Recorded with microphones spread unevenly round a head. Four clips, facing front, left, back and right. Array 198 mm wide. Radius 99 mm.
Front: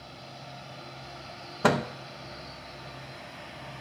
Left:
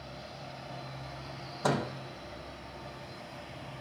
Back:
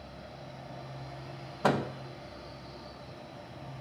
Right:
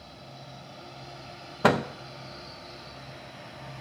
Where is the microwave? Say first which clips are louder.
Right 7 dB, front 3 dB; 50° right, 1.0 m.